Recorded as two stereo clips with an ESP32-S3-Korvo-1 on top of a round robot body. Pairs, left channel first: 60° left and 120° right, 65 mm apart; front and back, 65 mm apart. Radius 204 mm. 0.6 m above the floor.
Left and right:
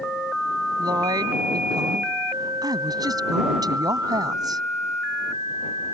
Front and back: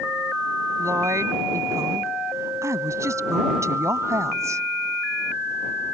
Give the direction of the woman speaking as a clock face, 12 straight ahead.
5 o'clock.